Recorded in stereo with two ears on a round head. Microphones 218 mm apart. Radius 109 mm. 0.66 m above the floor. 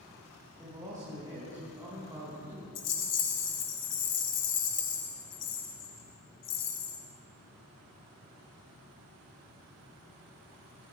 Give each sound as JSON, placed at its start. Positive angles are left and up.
{"t": 0.6, "sound": "a man speaking", "side_deg": -15, "distance_m": 5.5}
{"t": 2.8, "sound": "a rattle", "side_deg": 70, "distance_m": 2.5}